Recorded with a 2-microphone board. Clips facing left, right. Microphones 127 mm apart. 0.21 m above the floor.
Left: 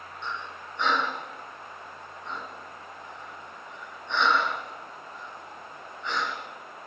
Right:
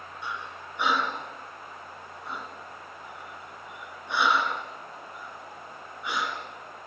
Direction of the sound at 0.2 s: 10° right (ahead or behind).